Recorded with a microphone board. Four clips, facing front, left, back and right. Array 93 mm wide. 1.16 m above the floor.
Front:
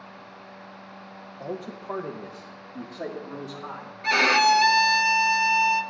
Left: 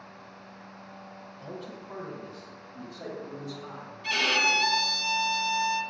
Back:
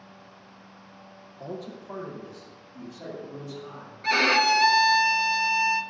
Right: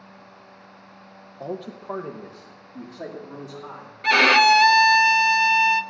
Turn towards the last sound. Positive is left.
turn(degrees=-85)